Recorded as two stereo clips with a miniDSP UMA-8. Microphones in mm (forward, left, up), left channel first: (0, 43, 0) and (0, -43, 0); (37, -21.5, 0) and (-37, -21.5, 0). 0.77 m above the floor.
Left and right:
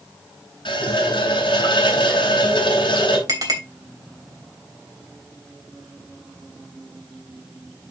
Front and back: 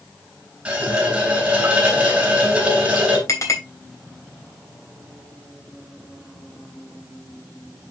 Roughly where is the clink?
Ahead right.